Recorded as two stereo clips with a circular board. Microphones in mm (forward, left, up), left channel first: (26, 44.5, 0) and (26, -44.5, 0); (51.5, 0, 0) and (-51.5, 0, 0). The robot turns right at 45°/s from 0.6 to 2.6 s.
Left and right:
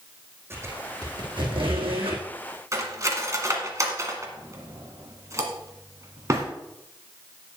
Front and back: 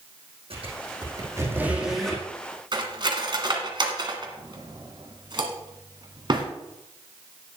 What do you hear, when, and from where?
0.5 s a squeak: 155° right, 2.5 m; by 2.2 s 80° right, 2.5 m
2.7 s cutlery clinking: 140° right, 1.6 m